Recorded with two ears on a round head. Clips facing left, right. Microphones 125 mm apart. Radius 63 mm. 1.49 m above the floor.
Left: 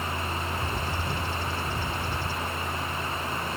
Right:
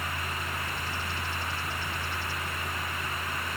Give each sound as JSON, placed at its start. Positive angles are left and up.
{"t": 0.5, "sound": "a bird", "side_deg": 80}